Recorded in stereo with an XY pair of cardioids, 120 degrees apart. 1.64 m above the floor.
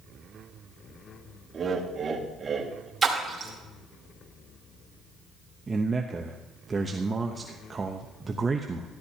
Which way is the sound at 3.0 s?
25° right.